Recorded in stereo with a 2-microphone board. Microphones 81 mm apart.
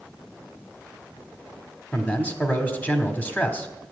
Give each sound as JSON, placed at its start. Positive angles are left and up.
{"t": 1.9, "sound": "a man speaking", "side_deg": 20, "distance_m": 1.6}